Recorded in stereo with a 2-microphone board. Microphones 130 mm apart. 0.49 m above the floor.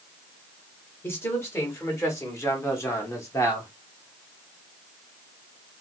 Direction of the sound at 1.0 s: 20° left (ahead or behind).